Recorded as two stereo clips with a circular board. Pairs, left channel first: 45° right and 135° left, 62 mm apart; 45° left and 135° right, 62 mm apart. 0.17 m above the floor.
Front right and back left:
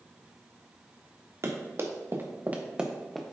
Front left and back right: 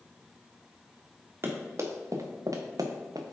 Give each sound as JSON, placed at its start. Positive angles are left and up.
{"t": 1.4, "sound": "running footsteps", "azimuth_deg": 175, "distance_m": 2.0}